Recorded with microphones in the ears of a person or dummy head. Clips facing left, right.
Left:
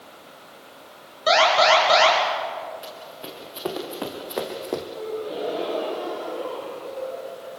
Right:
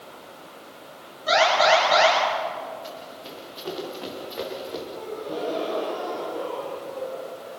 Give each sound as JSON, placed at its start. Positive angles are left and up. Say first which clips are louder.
{"t": 1.3, "sound": "an alarm", "louder": "left 1 dB", "side_deg": 85, "distance_m": 9.5}
{"t": 2.8, "sound": "running footsteps", "louder": "even", "side_deg": 75, "distance_m": 6.5}
{"t": 5.0, "sound": "a gasp", "louder": "left 2 dB", "side_deg": 0, "distance_m": 6.5}